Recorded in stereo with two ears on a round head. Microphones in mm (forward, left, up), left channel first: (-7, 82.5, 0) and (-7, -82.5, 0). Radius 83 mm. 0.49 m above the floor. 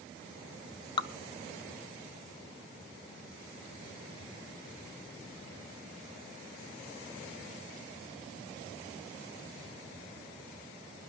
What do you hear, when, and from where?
1.0 s dripping: 25° left (ahead or behind), 0.6 m